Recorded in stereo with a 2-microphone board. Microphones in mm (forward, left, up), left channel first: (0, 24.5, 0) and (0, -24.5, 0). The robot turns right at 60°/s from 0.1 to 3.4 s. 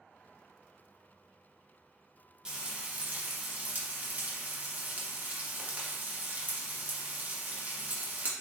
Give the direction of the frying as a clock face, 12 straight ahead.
5 o'clock.